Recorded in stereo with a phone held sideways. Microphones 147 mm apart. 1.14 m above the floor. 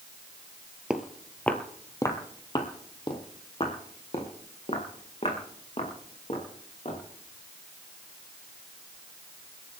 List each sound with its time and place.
0.9 s footsteps: 5° right (ahead or behind), 1.2 m; by 7.0 s 50° left (ahead or behind), 5.5 m